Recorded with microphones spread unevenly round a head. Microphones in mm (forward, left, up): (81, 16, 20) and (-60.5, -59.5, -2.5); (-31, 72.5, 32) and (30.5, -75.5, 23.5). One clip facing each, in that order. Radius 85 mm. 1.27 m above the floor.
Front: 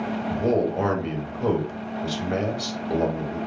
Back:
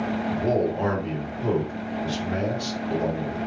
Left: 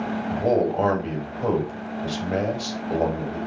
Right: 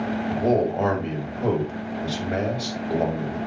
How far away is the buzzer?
I don't hear a buzzer.